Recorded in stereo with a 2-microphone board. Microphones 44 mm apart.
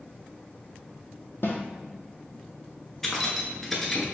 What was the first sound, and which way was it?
A snare drum, 55° left (ahead or behind).